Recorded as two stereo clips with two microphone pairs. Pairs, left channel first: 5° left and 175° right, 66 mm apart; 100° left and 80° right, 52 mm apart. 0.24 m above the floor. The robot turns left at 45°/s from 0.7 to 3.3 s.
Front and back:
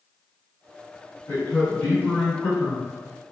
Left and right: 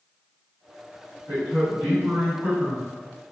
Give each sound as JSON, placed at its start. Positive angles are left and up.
{"t": 1.3, "sound": "a man speaking", "azimuth_deg": -20, "distance_m": 1.9}